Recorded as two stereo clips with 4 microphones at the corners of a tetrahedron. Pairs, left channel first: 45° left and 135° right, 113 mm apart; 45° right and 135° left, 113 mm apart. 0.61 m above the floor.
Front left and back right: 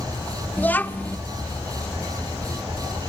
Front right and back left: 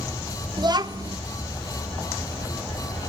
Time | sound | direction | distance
0.6 | a child speaking | 115° left | 0.9 m